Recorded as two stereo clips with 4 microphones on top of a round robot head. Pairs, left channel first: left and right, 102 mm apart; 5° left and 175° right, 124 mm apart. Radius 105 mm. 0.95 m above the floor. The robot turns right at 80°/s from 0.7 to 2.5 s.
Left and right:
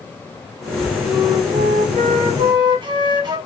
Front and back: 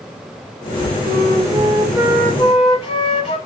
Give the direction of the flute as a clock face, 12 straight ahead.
5 o'clock.